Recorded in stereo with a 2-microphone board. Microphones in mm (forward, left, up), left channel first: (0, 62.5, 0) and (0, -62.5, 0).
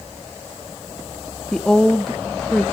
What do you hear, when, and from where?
1.5 s a woman speaking: 5° left (ahead or behind), 1.0 m